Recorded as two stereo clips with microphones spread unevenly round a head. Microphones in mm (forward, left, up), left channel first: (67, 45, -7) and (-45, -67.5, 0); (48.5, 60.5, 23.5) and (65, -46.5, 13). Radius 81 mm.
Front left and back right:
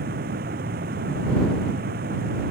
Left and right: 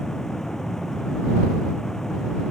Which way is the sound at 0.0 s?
175° right.